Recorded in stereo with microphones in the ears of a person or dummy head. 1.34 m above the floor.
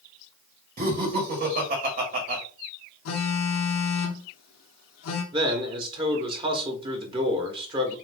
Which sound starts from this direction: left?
A phone buzzing, at 3.0 s.